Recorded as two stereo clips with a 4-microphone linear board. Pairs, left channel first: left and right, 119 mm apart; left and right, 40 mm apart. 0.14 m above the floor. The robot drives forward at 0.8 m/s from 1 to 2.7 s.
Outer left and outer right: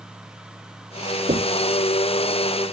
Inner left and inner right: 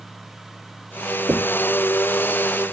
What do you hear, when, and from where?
1.3 s knocking: 55° right (ahead or behind); by 1.6 s 60° right (ahead or behind)